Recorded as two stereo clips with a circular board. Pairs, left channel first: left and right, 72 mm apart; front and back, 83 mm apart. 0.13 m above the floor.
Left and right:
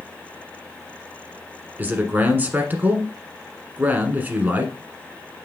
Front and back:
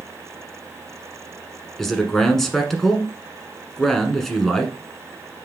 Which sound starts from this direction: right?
A man speaking, at 1.8 s.